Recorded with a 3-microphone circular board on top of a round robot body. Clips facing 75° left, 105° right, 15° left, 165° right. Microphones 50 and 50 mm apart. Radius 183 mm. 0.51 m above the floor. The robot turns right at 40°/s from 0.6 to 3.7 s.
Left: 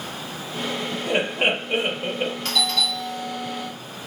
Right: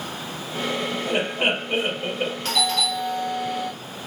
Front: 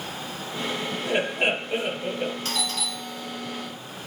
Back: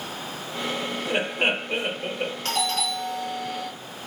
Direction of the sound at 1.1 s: 125° left.